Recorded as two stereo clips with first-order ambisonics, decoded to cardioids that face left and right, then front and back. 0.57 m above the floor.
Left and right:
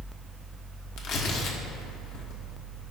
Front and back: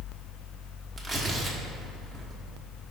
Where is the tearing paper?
90° left, 1.1 m.